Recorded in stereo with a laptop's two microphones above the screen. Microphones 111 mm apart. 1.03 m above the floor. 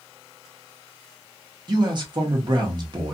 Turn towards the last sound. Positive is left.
turn(degrees=-40)  # may be behind; listen again after turning